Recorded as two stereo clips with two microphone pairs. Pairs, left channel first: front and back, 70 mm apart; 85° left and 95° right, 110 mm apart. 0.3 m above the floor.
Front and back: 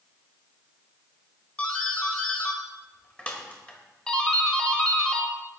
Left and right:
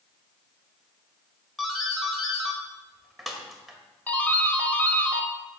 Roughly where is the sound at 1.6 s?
Ahead.